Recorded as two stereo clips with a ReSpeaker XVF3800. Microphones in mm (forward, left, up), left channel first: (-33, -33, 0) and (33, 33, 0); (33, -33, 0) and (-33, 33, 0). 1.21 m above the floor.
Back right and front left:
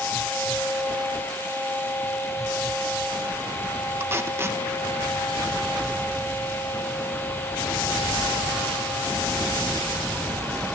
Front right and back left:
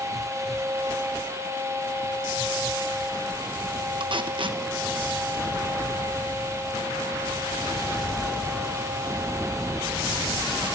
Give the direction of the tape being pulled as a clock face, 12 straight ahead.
8 o'clock.